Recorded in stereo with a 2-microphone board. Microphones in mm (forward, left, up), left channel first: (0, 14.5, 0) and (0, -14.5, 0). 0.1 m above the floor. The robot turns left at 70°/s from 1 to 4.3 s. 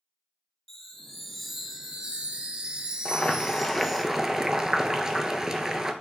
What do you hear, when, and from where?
0.7 s a chime: 25° left, 0.6 m; by 4.0 s 170° left, 0.6 m
3.0 s boiling: 65° left, 0.5 m; by 5.9 s 25° right, 0.5 m